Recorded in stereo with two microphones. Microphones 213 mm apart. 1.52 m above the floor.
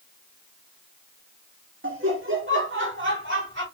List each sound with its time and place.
1.8 s laughter: 70° right (ahead or behind), 1.1 m; by 3.6 s 65° right (ahead or behind), 2.5 m